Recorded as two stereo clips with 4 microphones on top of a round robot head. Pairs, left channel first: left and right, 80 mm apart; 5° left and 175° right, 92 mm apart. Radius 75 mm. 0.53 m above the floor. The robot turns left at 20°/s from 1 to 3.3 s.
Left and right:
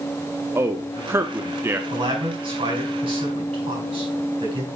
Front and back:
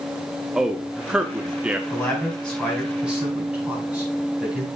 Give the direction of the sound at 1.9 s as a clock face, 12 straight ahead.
2 o'clock.